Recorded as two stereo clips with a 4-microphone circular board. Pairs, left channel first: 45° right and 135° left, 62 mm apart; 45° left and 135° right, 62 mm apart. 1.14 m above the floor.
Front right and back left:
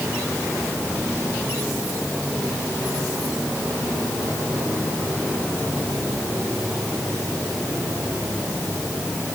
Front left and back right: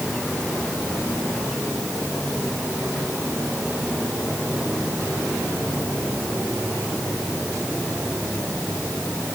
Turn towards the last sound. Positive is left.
No sound to turn to.